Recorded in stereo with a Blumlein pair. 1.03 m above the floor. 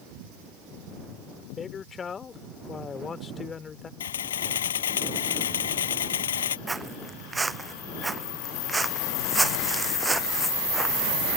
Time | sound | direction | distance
1.6 | a man speaking | 20° left | ?
4.0 | a camera shutter | 65° left | ?
6.7 | footsteps | 10° right | ?